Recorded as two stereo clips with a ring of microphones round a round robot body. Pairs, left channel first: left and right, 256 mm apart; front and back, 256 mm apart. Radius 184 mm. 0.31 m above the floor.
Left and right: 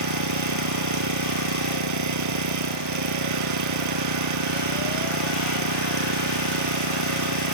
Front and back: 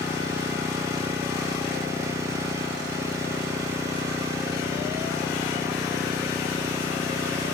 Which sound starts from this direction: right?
An engine running, at 0.0 s.